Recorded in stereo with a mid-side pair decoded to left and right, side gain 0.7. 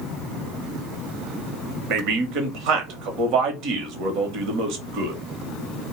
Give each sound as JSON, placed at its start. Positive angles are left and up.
{"t": 1.9, "sound": "a man speaking", "azimuth_deg": -60, "distance_m": 0.9}